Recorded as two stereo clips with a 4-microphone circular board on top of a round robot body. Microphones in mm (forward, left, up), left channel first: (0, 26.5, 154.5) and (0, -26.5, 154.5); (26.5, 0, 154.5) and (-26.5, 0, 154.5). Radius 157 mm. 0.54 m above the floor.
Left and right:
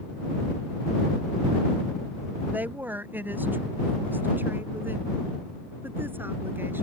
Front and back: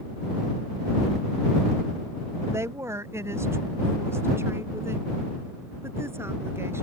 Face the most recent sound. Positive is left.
turn(degrees=-140)